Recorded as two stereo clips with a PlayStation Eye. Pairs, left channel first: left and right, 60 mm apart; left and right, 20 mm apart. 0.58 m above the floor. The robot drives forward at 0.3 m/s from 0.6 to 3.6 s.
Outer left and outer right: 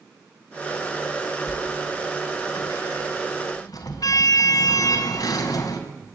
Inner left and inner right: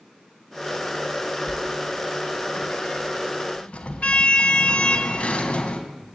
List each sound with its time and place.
1.5 s a sliding door: 70° left (ahead or behind), 3 m; by 5.8 s 80° left, 3 m